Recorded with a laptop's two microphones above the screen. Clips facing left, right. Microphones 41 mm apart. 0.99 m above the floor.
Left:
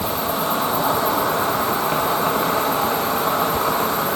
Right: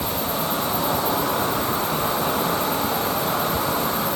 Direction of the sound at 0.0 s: 50° left (ahead or behind).